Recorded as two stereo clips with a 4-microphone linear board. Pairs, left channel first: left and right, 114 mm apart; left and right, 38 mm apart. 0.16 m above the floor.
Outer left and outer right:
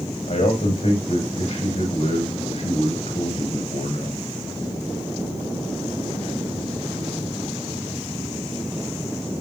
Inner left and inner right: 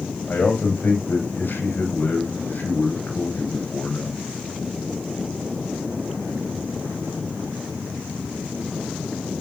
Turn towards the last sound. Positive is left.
turn(degrees=80)